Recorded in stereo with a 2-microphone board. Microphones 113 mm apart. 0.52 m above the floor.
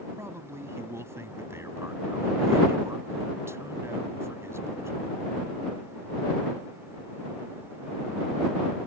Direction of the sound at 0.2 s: 25° right (ahead or behind).